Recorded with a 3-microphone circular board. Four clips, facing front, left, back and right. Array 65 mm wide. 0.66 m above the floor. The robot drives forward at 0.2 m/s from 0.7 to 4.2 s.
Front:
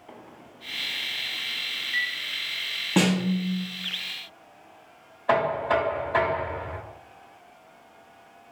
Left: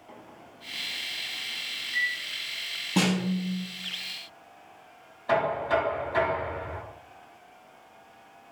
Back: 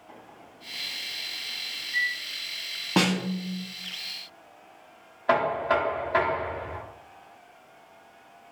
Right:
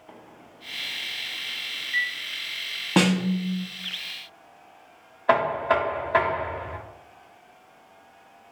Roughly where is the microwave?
Ahead right.